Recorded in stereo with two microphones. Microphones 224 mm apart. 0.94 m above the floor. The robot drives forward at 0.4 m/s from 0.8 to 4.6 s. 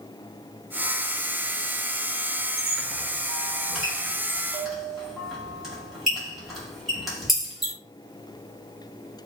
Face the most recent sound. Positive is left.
turn(degrees=0)  # may be behind; listen again after turning